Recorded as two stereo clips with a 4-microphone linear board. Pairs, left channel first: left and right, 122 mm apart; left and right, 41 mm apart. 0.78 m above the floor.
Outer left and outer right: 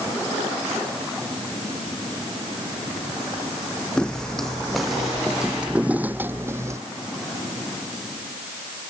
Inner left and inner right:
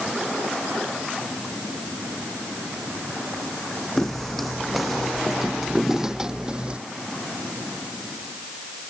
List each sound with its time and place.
4.0 s footsteps: 5° left (ahead or behind); by 6.8 s 25° right (ahead or behind)